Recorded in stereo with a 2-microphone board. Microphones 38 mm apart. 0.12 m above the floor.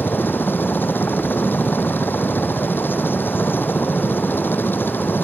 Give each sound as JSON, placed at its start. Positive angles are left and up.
{"t": 0.0, "sound": "a helicopter", "side_deg": 65}